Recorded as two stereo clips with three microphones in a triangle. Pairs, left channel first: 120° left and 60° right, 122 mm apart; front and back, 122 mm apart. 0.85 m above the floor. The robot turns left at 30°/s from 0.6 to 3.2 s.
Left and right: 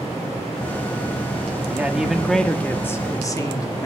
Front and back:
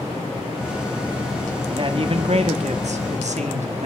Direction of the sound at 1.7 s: 135° right.